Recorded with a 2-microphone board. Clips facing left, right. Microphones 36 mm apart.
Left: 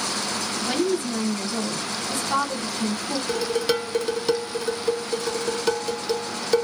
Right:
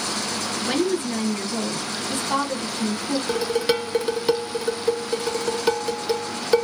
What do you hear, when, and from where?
0.7 s a woman speaking: 35° right (ahead or behind), 1.7 m
3.3 s dishes clattering: 15° right (ahead or behind), 0.7 m